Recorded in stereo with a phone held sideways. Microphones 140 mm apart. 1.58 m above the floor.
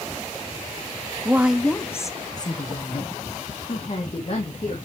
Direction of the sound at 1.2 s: 20° right (ahead or behind).